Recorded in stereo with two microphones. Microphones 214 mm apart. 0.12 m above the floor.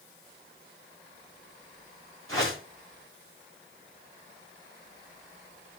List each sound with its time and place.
2.3 s a whoosh: 75° right (ahead or behind), 7 m